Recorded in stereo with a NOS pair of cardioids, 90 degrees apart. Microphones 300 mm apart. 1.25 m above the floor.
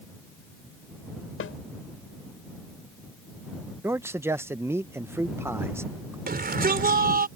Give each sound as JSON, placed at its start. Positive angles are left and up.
{"t": 1.4, "sound": "a snare drum", "azimuth_deg": 50}
{"t": 3.8, "sound": "a man speaking", "azimuth_deg": -10}
{"t": 6.3, "sound": "a shout", "azimuth_deg": -30}